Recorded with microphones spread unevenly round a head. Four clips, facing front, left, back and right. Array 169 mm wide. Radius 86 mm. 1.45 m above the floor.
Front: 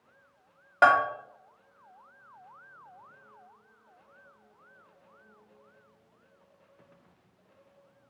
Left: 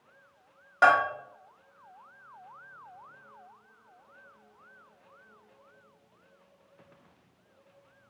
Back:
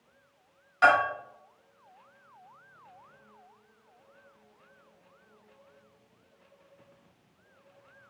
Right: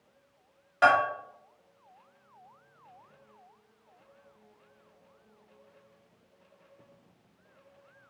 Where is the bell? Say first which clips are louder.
Left 1 dB, front 1 dB; 15° left, 2.5 m.